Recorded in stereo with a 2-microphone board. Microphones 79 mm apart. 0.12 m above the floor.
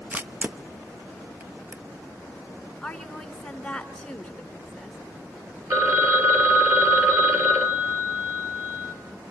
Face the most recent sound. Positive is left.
turn(degrees=-40)  # may be behind; listen again after turning